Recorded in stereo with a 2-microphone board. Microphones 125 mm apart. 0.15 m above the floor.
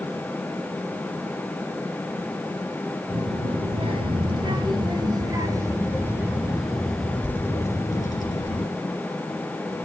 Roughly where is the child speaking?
Right.